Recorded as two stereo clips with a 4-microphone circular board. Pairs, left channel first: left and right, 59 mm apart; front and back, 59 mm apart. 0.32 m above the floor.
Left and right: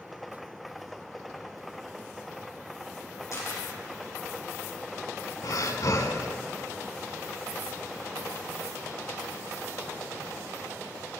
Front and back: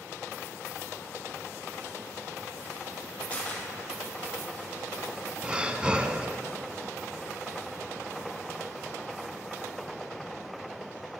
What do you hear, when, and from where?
3.3 s a camera shutter: 55° left, 3 m
5.4 s breathing: 110° left, 0.6 m